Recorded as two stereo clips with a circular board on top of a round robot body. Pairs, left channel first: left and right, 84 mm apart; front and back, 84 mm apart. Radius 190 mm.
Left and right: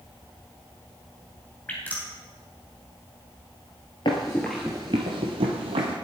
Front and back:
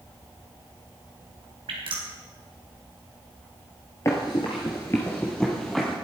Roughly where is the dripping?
Behind.